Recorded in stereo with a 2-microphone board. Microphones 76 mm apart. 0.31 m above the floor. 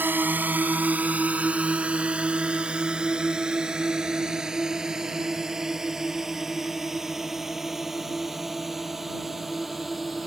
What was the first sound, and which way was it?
A drone, 25° right (ahead or behind).